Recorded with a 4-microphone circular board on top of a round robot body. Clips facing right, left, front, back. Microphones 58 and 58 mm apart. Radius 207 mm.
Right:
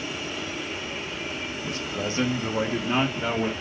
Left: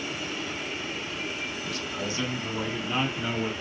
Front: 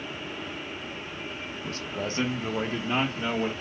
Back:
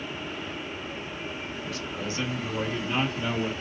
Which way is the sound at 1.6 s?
35° right.